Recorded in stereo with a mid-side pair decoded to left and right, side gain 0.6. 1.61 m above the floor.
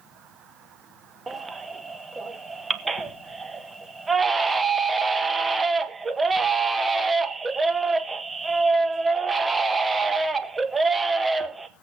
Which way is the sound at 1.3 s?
15° right.